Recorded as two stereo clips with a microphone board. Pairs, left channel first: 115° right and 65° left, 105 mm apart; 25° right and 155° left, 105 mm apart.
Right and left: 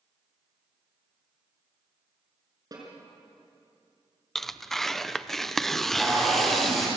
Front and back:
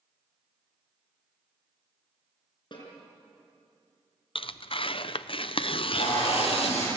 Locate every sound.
2.7 s a snare drum: 15° left, 5.5 m
4.3 s tearing paper: 25° right, 0.6 m
5.7 s tape being pulled: 25° right, 9 m